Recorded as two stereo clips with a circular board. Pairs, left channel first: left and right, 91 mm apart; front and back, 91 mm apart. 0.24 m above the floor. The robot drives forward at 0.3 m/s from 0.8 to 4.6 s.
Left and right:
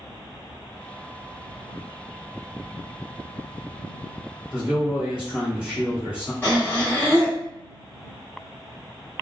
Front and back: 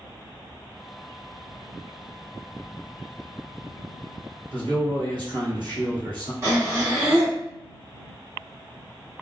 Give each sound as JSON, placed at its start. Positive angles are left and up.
{"t": 4.5, "sound": "a man speaking", "azimuth_deg": -165, "distance_m": 1.9}
{"t": 6.4, "sound": "breathing", "azimuth_deg": 145, "distance_m": 1.4}